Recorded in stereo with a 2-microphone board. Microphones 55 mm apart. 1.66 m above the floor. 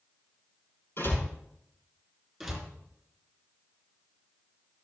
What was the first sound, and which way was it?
A door slam, 50° left (ahead or behind).